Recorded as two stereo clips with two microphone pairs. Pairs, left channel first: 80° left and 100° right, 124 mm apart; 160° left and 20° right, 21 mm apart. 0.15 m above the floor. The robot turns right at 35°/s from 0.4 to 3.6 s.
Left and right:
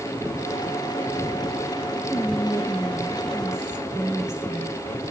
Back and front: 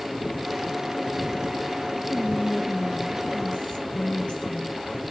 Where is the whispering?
125° left, 2.5 m; by 4.9 s 175° left, 2.5 m.